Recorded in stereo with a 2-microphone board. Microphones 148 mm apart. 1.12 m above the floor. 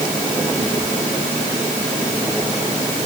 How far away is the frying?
No frying in this recording.